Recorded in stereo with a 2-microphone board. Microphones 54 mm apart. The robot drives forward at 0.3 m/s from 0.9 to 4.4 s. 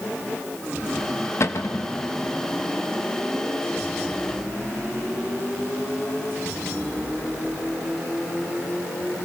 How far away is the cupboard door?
About 0.8 m.